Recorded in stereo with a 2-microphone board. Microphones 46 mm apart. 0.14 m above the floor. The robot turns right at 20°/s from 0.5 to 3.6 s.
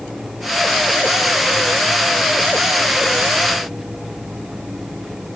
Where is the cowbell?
No cowbell in this recording.